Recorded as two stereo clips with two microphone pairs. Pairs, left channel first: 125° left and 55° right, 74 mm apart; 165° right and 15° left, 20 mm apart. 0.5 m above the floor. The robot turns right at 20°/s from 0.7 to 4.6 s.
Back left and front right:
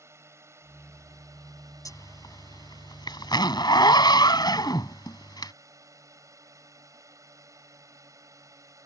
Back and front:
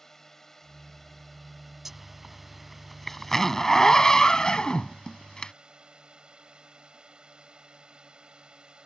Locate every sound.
0.0 s a drone: 95° right; by 8.9 s 20° right
1.9 s a zipper: 90° left; by 5.5 s 145° left